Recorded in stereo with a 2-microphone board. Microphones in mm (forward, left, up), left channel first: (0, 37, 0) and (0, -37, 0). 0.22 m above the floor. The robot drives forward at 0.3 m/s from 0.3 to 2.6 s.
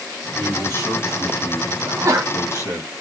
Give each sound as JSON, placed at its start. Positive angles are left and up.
{"t": 0.3, "sound": "a man speaking", "side_deg": 30, "distance_m": 2.0}
{"t": 1.8, "sound": "a sneeze", "side_deg": -35, "distance_m": 1.5}